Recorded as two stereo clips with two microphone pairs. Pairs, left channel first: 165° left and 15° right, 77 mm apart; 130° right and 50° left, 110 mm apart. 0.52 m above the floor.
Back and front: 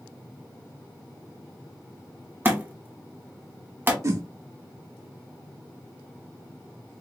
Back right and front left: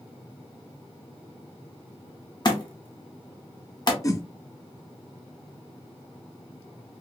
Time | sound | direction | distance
2.5 | a thud | 80° right | 0.8 m
4.0 | a whoosh | 65° right | 0.6 m